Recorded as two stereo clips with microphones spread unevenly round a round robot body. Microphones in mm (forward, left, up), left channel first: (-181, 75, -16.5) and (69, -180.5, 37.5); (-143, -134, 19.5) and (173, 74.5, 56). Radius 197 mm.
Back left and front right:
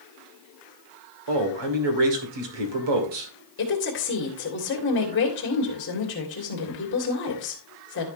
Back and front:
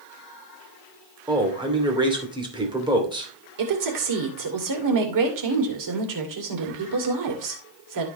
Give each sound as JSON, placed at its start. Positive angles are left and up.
{"t": 1.3, "sound": "a man speaking", "azimuth_deg": -45, "distance_m": 2.5}
{"t": 3.6, "sound": "a woman speaking", "azimuth_deg": 75, "distance_m": 2.5}